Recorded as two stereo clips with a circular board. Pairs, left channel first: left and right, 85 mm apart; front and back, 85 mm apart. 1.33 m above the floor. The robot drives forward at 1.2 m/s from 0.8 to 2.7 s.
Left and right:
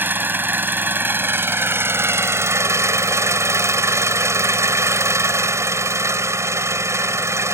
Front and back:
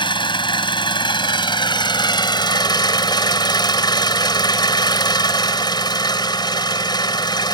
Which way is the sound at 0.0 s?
25° right.